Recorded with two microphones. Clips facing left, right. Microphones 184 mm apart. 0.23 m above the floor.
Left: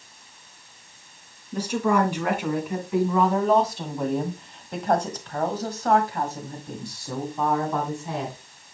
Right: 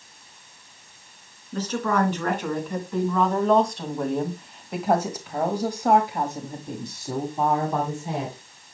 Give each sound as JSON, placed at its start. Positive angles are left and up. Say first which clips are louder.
{"t": 1.5, "sound": "a woman speaking", "louder": "left 2 dB", "side_deg": 10, "distance_m": 3.0}